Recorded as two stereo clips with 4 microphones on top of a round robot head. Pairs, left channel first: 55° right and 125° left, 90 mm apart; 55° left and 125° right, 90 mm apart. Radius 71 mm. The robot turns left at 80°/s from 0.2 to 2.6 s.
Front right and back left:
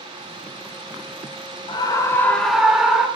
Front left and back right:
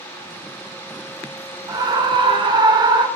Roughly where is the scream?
Right.